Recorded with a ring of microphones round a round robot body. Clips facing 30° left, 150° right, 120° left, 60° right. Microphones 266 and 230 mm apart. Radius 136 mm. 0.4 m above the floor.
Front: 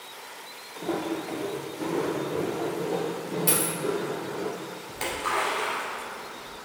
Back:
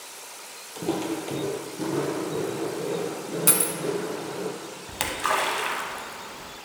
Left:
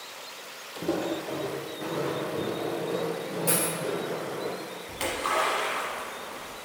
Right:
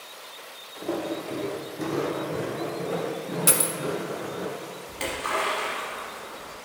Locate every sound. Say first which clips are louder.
0.8 s footsteps: back 2 dB, left 1 dB; 165° left, 0.6 m; by 4.5 s 75° right, 2.5 m
3.5 s a dropped coin: even, left 3 dB; 90° right, 0.6 m
4.9 s a splash: back 2 dB, left 1 dB; 155° right, 0.8 m